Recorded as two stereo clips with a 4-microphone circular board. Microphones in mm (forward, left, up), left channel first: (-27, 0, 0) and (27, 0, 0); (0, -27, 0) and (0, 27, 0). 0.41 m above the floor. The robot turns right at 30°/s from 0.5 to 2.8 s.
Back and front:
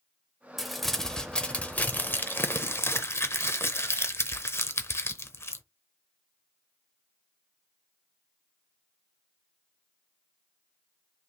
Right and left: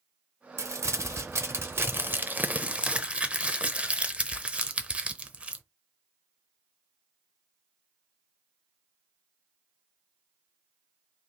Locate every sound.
0.6 s crumpling: 90° left, 0.6 m; by 5.6 s 155° left, 0.6 m